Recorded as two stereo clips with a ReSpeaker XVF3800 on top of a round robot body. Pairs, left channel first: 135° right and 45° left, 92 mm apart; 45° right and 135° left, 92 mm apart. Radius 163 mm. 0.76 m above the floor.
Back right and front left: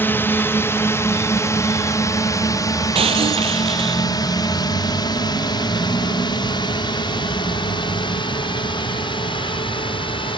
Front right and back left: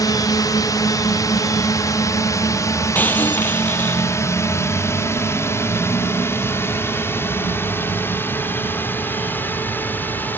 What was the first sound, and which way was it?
A drone, 75° right.